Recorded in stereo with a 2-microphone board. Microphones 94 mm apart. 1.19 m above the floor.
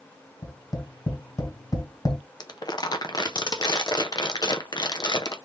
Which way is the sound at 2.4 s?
50° left (ahead or behind).